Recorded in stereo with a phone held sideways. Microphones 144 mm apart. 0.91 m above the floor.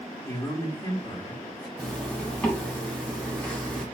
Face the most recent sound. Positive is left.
turn(degrees=10)  # may be behind; listen again after turning